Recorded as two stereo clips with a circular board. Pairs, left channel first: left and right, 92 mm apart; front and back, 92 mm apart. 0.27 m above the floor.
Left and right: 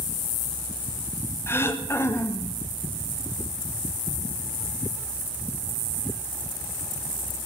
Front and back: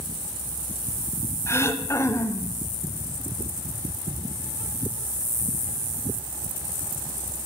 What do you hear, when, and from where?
1.5 s throat clearing: 45° left, 1.1 m